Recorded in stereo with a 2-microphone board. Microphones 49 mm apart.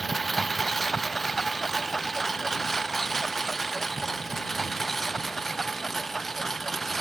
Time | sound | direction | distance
0.0 | a lawn mower | 5° left (ahead or behind) | ?